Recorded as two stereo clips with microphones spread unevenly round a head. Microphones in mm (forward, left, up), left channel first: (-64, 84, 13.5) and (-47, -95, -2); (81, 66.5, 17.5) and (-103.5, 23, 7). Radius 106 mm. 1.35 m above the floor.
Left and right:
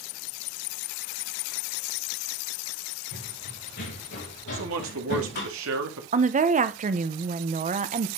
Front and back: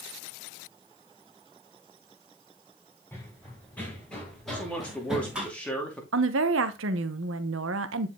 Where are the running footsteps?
90° left, 4.5 m; by 5.5 s 110° left, 3.5 m.